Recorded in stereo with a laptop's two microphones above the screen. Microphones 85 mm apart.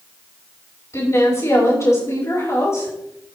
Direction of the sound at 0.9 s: 35° left (ahead or behind).